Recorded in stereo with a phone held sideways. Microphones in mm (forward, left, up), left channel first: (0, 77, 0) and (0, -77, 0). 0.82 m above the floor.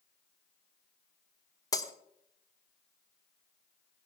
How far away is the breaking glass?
About 1.1 m.